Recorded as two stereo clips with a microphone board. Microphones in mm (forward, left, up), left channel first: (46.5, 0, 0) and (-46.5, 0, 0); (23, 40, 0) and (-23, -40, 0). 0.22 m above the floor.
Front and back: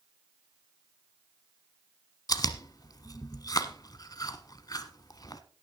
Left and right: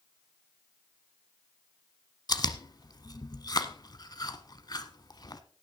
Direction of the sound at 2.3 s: 35° left.